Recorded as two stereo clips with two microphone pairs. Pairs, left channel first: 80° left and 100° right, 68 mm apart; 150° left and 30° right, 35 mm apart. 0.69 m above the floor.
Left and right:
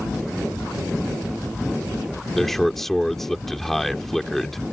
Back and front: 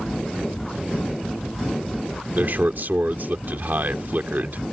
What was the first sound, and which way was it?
A man speaking, 10° right.